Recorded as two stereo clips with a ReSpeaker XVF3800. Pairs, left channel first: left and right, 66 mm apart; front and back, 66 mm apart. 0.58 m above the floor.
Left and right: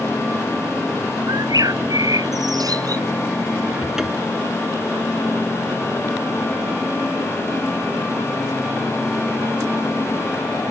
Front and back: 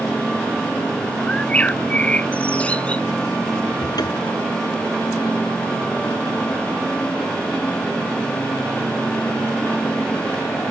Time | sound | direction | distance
1.3 | a bird | 70° right | ?
3.8 | a cupboard door | 10° right | ?